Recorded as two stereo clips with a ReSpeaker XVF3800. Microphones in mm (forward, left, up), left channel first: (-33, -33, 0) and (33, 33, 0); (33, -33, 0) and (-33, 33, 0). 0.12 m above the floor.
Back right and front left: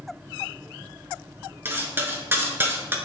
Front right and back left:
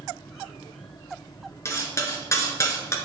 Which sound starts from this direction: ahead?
Cutlery clinking, at 1.6 s.